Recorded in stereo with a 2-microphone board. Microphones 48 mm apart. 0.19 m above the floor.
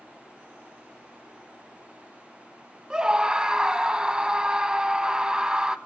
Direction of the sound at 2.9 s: 20° right (ahead or behind).